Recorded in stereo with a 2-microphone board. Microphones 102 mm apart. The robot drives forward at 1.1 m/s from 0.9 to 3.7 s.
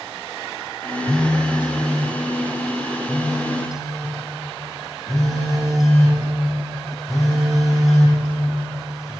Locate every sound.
1.1 s a phone buzzing: 5° left (ahead or behind), 0.5 m; by 9.1 s centre (ahead or behind), 3 m